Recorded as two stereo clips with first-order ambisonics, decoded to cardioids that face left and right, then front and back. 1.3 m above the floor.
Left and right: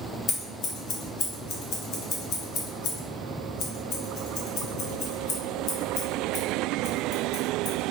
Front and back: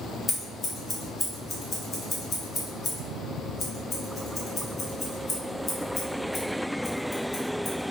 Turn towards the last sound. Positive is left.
turn(degrees=65)